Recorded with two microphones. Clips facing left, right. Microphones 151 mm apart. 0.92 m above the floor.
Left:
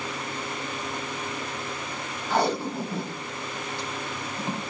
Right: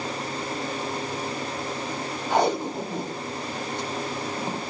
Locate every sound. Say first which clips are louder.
2.3 s tape being pulled: right 2 dB; 20° right (ahead or behind), 2.5 m